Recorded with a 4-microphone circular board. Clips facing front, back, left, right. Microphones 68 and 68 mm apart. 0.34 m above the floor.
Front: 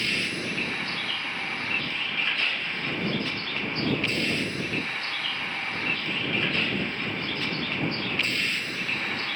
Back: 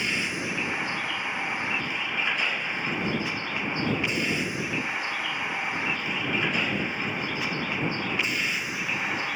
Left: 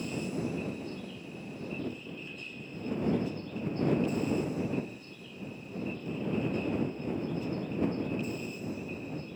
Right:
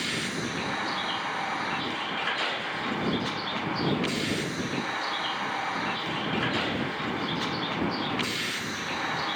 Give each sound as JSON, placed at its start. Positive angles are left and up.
{"t": 0.0, "sound": "a vehicle", "azimuth_deg": -110}